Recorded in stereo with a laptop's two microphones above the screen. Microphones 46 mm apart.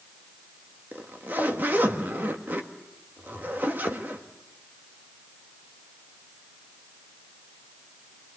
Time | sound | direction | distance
0.9 | a zipper | 45° right (ahead or behind) | 1.7 m